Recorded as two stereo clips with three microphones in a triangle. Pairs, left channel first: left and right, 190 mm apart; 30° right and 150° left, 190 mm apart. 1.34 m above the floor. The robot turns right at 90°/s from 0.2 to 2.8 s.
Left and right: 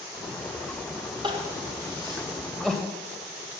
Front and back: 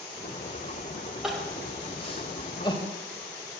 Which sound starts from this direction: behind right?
Crying, at 1.2 s.